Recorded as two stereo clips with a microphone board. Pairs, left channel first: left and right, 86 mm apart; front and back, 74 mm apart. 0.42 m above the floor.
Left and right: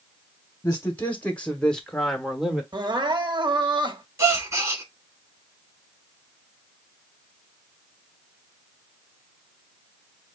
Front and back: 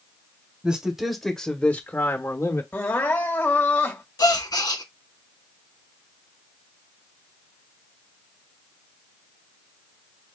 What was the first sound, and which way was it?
A man speaking, 115° left.